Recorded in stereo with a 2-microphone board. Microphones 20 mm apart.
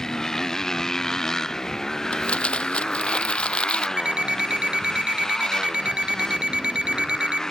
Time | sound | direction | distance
0.0 | a motorcycle | 25° left (ahead or behind) | ?
2.1 | crumpling | 65° left (ahead or behind) | ?
4.0 | an alarm clock | 50° right (ahead or behind) | ?